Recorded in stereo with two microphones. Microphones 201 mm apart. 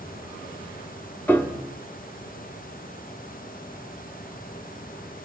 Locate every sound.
1.3 s a piano: 10° left (ahead or behind), 0.7 m